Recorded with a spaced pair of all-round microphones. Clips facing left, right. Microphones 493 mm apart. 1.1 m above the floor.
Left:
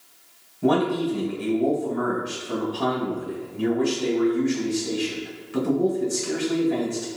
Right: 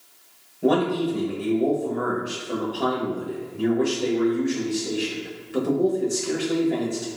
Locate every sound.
0.6 s a man speaking: 20° left (ahead or behind), 1.2 m